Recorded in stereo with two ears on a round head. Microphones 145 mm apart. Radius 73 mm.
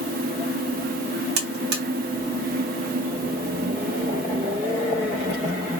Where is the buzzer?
65° right (ahead or behind), 1.0 m.